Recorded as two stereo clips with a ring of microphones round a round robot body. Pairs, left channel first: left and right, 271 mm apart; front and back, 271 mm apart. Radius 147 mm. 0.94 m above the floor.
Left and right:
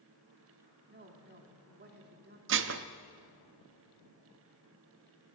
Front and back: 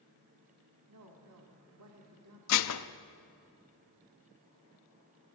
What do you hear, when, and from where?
0.9 s a woman speaking: 140° right, 2 m
2.5 s dishes clattering: 40° right, 0.7 m